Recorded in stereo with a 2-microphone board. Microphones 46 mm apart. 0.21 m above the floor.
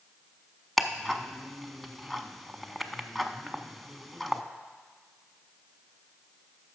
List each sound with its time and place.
0.8 s ticking: 5° left (ahead or behind), 0.5 m